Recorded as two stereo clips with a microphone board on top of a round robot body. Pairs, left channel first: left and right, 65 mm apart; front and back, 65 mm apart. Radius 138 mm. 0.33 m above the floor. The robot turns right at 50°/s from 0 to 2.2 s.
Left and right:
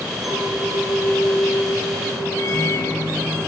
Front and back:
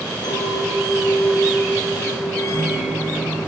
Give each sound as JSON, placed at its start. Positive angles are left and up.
{"t": 0.2, "sound": "a clink", "azimuth_deg": -5, "distance_m": 9.0}
{"t": 2.4, "sound": "a microwave", "azimuth_deg": 45, "distance_m": 5.5}